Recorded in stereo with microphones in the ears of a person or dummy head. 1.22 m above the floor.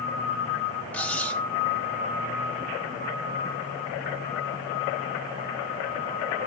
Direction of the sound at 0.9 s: 5° left (ahead or behind).